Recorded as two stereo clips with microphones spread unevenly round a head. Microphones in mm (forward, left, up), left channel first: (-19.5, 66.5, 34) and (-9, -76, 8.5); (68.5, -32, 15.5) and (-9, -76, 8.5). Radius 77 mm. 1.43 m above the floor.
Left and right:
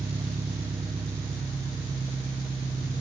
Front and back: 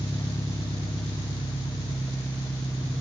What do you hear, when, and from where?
0.0 s an engine running: 10° right, 2 m